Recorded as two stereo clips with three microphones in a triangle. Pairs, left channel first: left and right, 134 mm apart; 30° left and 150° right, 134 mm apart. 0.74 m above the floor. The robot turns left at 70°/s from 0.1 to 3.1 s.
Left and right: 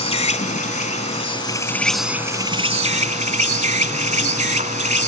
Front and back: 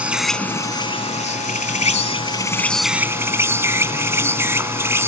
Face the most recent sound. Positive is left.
turn(degrees=-80)